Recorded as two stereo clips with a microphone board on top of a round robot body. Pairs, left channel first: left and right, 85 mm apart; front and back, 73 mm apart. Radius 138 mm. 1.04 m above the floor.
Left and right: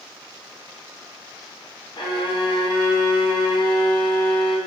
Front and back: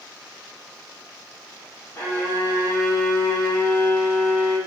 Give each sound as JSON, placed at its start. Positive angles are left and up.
{"t": 2.0, "sound": "a violin", "azimuth_deg": 50, "distance_m": 0.9}